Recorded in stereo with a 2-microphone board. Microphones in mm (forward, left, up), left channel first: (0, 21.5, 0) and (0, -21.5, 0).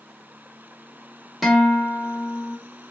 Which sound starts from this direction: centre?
A guitar, at 1.4 s.